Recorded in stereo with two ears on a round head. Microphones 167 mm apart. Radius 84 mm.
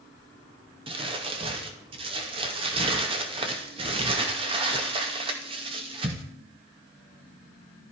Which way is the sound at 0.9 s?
30° right (ahead or behind).